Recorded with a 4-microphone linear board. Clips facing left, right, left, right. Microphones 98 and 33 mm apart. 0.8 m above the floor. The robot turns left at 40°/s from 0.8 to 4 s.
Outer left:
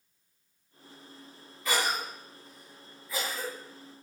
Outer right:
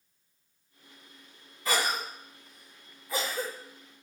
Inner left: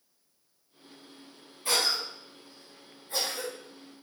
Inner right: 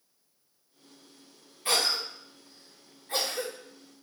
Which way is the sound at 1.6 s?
40° right (ahead or behind).